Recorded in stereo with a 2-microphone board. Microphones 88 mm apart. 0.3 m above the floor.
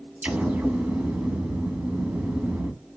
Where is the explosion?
15° right (ahead or behind), 1.1 m.